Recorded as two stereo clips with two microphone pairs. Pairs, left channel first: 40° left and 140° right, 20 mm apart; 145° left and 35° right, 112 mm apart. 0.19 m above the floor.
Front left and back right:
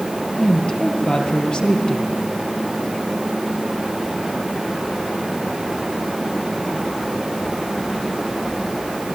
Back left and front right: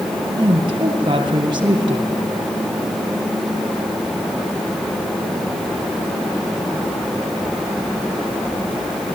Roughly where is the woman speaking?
Ahead.